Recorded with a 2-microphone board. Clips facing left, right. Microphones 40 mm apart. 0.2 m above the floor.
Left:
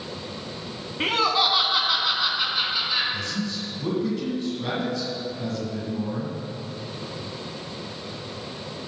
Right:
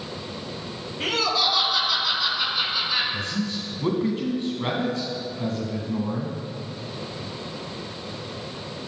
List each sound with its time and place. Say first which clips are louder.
1.0 s laughter: left 2 dB; 40° left (ahead or behind), 1.4 m; by 3.0 s centre (ahead or behind), 1.9 m
3.1 s a man speaking: right 1 dB; 40° right (ahead or behind), 2 m